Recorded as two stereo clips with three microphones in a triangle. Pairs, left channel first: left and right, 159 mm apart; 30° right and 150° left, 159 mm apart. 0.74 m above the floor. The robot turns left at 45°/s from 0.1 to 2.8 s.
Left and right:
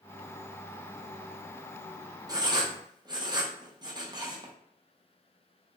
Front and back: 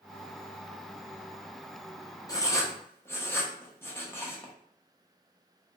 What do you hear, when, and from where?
2.3 s writing: 60° right, 0.5 m; by 4.5 s 85° right, 0.5 m